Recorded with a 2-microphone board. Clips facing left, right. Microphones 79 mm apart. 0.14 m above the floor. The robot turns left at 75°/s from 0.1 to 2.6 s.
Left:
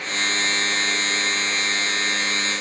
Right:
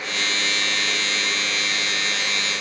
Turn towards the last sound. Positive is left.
No sound to turn to.